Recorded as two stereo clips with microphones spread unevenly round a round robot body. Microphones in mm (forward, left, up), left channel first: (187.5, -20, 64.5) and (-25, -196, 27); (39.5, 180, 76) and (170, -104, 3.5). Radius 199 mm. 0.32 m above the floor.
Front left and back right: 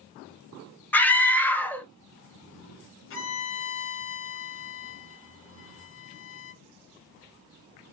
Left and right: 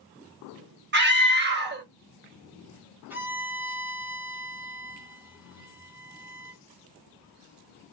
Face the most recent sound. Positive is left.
turn(degrees=5)